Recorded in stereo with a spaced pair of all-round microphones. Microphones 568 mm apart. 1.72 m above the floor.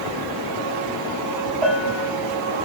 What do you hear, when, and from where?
1.6 s a bell: 70° right (ahead or behind), 1.8 m